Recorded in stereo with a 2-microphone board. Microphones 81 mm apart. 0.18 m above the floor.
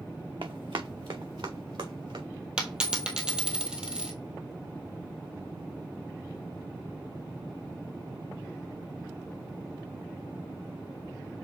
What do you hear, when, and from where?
0.4 s running footsteps: 75° right (ahead or behind), 1.1 m; by 2.2 s 85° right, 1.9 m
2.6 s a dropped coin: 10° right (ahead or behind), 1.1 m